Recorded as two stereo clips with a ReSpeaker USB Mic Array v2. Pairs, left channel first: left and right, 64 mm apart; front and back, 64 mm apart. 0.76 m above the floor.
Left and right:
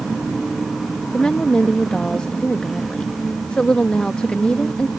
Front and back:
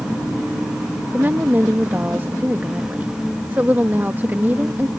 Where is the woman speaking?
155° left.